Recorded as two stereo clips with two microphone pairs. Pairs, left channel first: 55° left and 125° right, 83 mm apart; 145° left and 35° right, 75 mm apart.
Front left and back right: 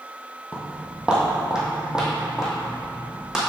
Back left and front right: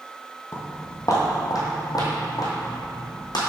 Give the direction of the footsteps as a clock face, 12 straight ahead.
6 o'clock.